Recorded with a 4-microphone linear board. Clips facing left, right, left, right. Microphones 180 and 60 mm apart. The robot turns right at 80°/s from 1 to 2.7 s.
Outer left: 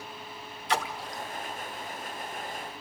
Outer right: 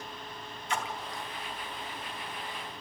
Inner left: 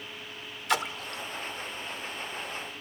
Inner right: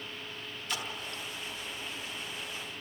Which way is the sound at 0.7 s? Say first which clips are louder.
Outer left 4 dB, inner left 9 dB; 80° left.